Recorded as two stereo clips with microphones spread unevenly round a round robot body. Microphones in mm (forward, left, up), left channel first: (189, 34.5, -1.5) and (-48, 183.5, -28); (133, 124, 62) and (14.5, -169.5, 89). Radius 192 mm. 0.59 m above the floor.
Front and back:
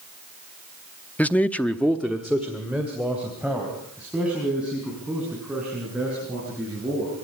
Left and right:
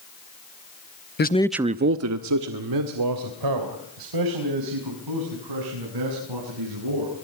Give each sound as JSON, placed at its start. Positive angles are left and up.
{"t": 1.2, "sound": "a man speaking", "azimuth_deg": 55, "distance_m": 0.9}